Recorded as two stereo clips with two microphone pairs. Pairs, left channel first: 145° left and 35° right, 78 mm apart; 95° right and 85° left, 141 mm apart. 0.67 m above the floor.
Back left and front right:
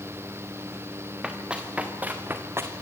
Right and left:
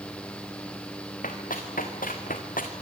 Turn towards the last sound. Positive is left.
turn(degrees=-85)